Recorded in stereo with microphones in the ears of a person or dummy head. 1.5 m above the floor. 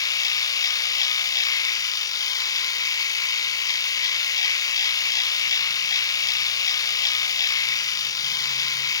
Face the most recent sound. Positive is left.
turn(degrees=20)  # may be behind; listen again after turning